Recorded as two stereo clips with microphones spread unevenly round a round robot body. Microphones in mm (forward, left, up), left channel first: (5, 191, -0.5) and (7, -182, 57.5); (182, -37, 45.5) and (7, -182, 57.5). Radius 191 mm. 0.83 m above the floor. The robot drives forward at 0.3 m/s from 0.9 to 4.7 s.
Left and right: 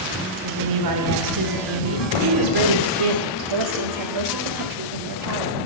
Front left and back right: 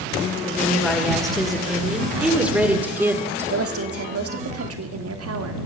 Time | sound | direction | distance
0.4 | a woman speaking | 45° right | 3 m
3.4 | a woman speaking | 120° right | 1.7 m